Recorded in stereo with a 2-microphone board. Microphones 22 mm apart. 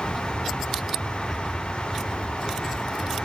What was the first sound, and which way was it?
An aircraft, 20° right (ahead or behind).